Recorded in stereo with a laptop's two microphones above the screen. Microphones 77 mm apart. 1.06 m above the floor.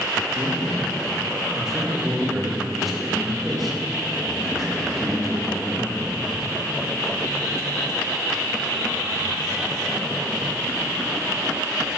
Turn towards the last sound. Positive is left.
turn(degrees=0)  # may be behind; listen again after turning